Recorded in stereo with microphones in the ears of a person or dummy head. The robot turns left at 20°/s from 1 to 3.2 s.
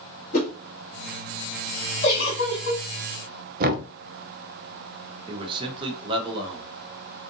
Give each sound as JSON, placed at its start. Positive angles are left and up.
{"t": 0.3, "sound": "a whoosh", "side_deg": 40, "distance_m": 1.2}
{"t": 2.0, "sound": "a giggle", "side_deg": 45, "distance_m": 1.6}
{"t": 3.6, "sound": "knocking", "side_deg": -45, "distance_m": 0.6}
{"t": 5.3, "sound": "a man speaking", "side_deg": -20, "distance_m": 1.0}